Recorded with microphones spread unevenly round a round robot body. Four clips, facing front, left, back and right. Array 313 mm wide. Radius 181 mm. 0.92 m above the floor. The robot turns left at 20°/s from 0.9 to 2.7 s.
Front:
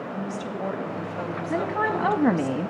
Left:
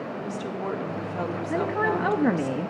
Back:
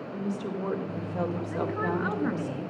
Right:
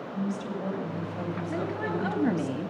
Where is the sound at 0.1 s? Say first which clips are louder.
Even, back 2 dB; 125° left, 4.5 m; by 2.5 s 95° left, 4.5 m.